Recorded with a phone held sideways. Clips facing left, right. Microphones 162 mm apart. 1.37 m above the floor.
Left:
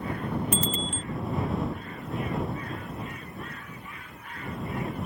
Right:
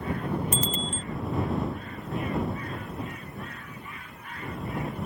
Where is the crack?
I don't hear a crack.